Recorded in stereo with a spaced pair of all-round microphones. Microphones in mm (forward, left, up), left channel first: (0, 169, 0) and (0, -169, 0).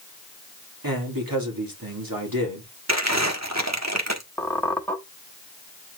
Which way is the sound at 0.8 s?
80° right.